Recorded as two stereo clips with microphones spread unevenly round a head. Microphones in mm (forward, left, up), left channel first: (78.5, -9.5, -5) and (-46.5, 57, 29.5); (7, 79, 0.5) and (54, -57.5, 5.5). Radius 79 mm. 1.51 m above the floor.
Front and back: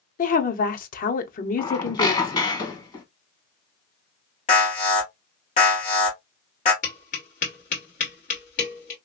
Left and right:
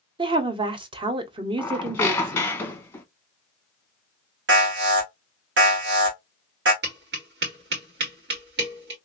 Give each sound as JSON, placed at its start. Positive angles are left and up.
{"t": 0.2, "sound": "a woman speaking", "azimuth_deg": -15, "distance_m": 0.8}
{"t": 1.6, "sound": "a squeak", "azimuth_deg": 35, "distance_m": 0.9}
{"t": 4.5, "sound": "an alarm", "azimuth_deg": -75, "distance_m": 1.8}
{"t": 6.8, "sound": "tapping", "azimuth_deg": -75, "distance_m": 2.0}